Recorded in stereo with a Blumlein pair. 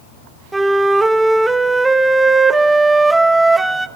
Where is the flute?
10° right, 0.7 m.